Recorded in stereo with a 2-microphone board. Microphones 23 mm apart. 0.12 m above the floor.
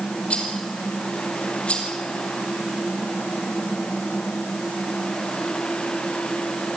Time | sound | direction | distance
0.3 | a rattle | 55° left (ahead or behind) | 3.5 m